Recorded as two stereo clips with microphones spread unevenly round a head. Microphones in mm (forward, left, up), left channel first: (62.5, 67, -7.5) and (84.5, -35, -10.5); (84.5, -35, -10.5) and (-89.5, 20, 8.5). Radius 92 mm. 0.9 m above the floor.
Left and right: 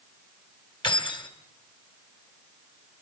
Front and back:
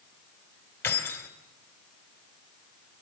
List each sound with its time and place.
0.8 s keys jangling: 60° left, 3.5 m